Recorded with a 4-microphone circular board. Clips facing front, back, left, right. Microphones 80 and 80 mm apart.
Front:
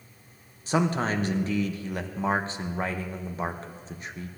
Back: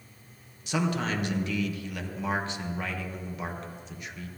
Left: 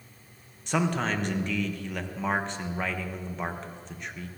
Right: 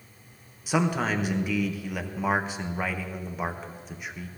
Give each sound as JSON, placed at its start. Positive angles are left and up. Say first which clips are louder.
{"t": 0.7, "sound": "a man speaking", "louder": "front 3 dB, right 2 dB", "azimuth_deg": -10, "distance_m": 1.0}